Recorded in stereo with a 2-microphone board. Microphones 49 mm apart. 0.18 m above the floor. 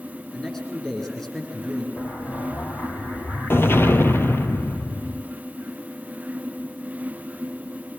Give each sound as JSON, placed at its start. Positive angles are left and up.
{"t": 0.3, "sound": "a man speaking", "side_deg": 10, "distance_m": 8.5}
{"t": 2.0, "sound": "an explosion", "side_deg": 50, "distance_m": 1.3}